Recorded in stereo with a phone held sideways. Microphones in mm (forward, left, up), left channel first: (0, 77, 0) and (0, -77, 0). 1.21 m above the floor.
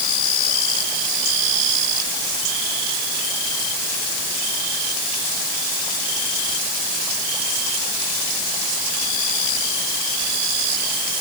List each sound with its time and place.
Only background noise.